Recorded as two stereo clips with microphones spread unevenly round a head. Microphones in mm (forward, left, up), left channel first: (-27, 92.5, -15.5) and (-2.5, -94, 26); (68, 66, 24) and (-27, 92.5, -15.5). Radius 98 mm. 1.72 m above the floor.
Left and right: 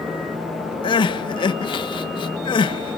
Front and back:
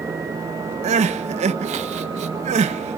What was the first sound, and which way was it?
Crying, 170° left.